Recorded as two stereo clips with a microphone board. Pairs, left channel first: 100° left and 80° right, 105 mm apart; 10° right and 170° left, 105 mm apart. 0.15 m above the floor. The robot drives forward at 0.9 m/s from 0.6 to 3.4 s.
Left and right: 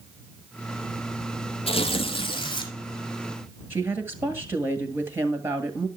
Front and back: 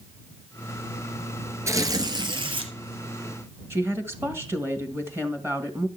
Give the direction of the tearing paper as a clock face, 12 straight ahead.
8 o'clock.